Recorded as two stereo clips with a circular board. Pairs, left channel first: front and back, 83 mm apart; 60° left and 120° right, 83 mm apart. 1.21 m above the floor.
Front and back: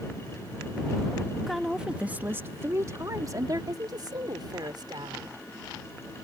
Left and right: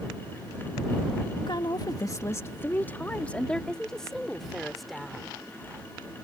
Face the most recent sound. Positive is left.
turn(degrees=155)